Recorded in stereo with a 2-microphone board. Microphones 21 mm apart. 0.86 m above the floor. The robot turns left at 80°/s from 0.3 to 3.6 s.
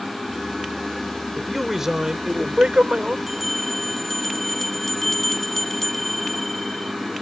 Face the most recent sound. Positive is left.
turn(degrees=10)  # may be behind; listen again after turning